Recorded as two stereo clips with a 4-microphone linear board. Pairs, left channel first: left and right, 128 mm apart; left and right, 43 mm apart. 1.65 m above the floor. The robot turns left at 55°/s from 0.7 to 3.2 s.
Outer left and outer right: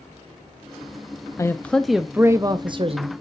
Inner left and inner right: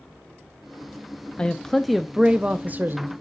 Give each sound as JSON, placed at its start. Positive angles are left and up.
{"t": 1.4, "sound": "a man speaking", "azimuth_deg": 30, "distance_m": 0.5}